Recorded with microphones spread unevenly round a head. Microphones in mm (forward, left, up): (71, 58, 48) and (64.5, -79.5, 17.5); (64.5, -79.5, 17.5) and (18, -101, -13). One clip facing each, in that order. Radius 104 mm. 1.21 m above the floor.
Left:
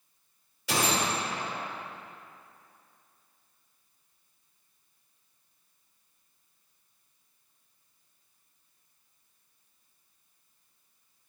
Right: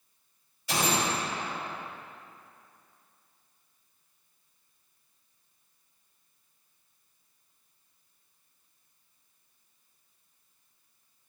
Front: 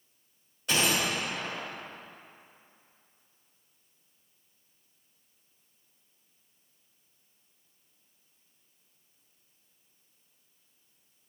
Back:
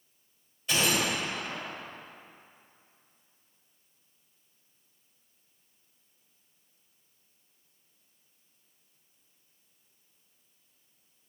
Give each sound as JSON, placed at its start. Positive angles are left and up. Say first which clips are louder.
{"t": 0.7, "sound": "a gunshot", "louder": "even, even", "azimuth_deg": 80, "distance_m": 3.5}